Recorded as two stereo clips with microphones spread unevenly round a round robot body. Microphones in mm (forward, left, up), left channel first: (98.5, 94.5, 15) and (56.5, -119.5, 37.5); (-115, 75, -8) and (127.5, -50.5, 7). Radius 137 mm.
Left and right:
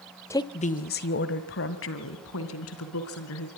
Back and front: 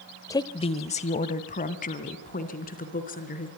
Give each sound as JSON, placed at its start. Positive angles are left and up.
{"t": 0.3, "sound": "a woman speaking", "azimuth_deg": 110, "distance_m": 0.8}